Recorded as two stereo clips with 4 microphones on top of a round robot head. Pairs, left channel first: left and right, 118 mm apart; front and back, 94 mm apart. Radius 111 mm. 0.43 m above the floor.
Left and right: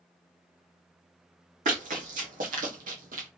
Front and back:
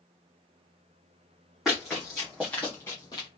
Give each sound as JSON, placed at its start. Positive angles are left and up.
{"t": 1.6, "sound": "running footsteps", "azimuth_deg": -95, "distance_m": 1.5}